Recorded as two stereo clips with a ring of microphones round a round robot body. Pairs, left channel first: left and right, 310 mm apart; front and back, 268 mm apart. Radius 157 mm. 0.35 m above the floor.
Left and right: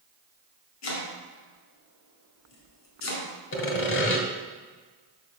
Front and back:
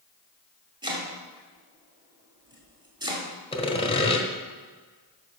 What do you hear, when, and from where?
0.8 s chopping: 110° left, 2 m
3.5 s sawing: 60° left, 1.4 m